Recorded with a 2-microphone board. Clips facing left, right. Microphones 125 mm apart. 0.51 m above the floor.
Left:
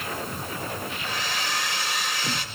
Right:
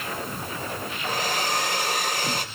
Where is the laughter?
No laughter in this recording.